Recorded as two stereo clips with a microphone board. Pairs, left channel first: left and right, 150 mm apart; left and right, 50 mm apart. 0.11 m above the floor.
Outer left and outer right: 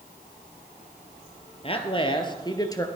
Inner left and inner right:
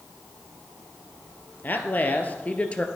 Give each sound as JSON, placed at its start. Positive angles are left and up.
{"t": 1.6, "sound": "a man speaking", "side_deg": 40, "distance_m": 2.0}